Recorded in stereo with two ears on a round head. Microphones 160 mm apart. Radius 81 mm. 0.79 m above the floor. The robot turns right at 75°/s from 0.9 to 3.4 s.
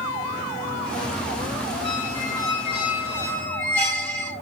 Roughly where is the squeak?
Ahead left.